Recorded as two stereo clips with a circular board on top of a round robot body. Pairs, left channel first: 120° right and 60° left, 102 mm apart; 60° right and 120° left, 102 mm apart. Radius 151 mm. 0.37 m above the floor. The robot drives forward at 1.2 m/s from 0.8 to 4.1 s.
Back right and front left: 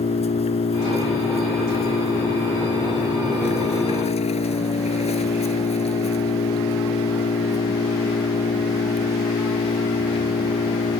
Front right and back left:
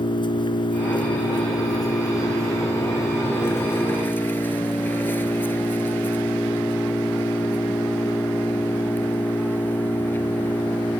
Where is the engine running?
100° right; by 11.0 s 130° right.